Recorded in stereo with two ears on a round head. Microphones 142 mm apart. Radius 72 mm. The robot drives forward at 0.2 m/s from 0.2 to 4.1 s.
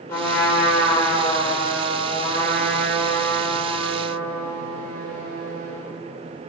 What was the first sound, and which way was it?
A trumpet, 15° left (ahead or behind).